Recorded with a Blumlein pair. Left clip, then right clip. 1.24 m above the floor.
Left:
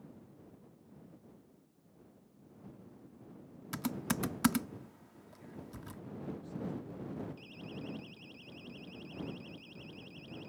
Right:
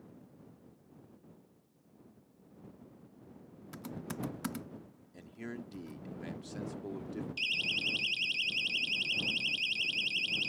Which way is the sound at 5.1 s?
40° right.